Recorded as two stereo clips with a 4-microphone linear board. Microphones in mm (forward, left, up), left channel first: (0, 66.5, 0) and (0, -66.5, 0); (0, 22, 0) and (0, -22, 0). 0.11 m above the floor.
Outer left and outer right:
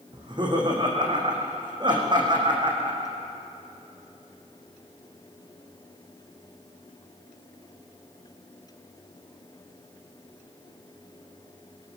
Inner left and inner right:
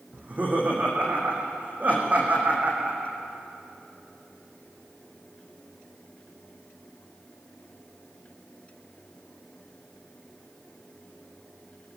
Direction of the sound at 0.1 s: 35° right (ahead or behind).